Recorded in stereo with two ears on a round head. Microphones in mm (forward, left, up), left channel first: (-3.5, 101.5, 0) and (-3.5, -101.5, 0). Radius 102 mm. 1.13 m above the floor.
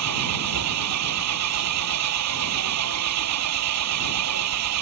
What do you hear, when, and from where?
0.0 s an engine running: 85° right